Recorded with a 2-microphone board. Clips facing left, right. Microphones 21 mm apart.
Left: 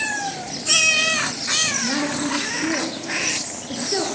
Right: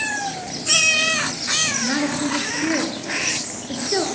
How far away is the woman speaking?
About 2 m.